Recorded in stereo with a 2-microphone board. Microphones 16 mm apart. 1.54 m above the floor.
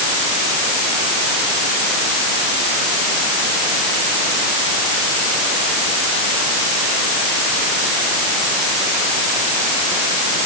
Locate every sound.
Only background noise.